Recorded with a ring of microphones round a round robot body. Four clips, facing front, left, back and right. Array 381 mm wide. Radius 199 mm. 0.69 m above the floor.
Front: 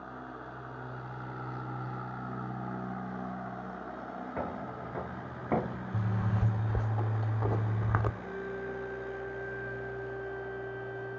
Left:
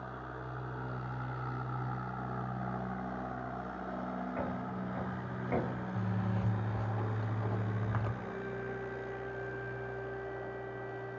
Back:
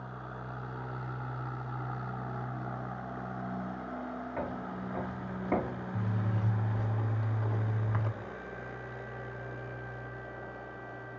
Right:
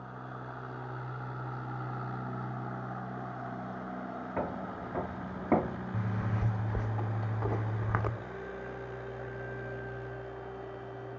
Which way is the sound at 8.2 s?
10° left.